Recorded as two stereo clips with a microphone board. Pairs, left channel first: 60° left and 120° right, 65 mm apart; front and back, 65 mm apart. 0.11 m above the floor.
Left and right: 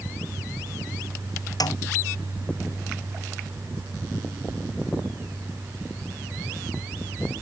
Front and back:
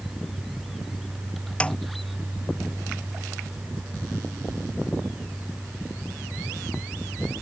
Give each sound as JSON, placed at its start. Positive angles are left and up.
{"t": 1.6, "sound": "a snare drum", "azimuth_deg": 75}